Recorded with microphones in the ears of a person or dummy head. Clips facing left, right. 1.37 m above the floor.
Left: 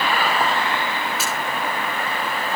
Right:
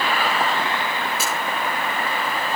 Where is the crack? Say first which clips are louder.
Even; 5° left (ahead or behind), 7.5 m.